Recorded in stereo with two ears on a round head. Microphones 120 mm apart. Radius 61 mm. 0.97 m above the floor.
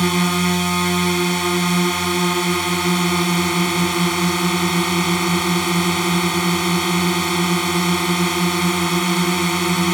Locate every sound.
0.0 s a drone: centre (ahead or behind)